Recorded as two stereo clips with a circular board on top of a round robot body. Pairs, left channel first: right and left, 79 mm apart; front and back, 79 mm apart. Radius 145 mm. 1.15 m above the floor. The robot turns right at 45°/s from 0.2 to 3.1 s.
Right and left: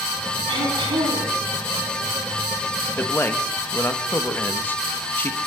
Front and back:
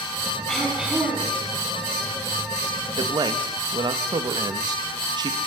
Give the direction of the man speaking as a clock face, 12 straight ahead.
5 o'clock.